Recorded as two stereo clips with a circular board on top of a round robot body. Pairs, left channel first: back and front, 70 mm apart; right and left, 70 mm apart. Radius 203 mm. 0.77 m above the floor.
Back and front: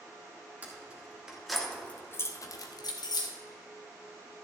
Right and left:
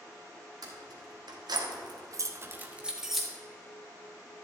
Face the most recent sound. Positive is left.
turn(degrees=180)